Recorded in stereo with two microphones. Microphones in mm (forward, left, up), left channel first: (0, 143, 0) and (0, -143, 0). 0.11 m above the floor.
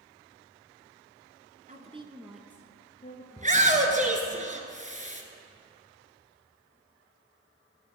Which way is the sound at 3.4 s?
25° right (ahead or behind).